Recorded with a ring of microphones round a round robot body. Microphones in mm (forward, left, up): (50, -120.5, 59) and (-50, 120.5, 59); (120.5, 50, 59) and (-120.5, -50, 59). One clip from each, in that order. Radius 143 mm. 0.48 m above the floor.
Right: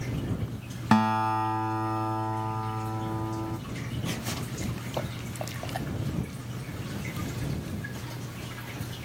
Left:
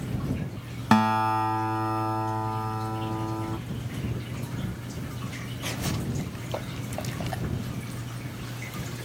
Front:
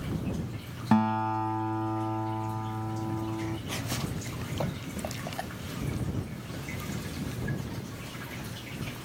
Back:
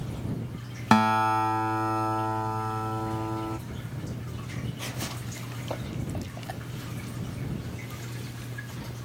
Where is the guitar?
165° right.